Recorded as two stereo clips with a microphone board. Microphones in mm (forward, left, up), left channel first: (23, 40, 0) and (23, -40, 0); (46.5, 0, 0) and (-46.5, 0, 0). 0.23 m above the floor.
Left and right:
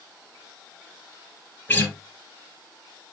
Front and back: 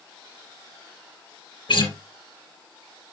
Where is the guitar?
25° left, 3 m.